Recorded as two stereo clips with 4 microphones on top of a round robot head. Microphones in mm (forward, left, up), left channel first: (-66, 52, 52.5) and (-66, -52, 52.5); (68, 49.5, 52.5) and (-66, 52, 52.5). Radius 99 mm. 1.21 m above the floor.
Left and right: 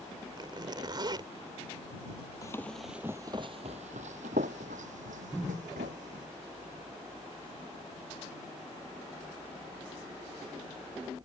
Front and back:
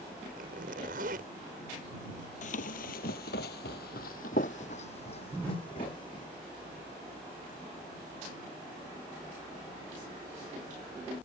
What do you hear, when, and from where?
0.4 s a zipper: 140° right
2.4 s running footsteps: 20° left; by 6.3 s 65° right